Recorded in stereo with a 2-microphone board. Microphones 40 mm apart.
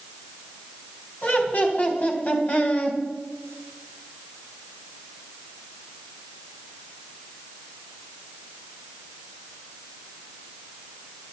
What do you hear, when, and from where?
1.2 s laughter: 45° left (ahead or behind), 4 m; by 3.0 s 30° left (ahead or behind), 2.5 m